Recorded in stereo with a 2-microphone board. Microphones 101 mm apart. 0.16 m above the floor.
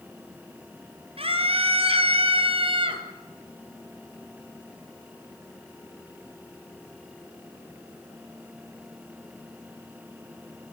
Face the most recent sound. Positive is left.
turn(degrees=-55)  # may be behind; listen again after turning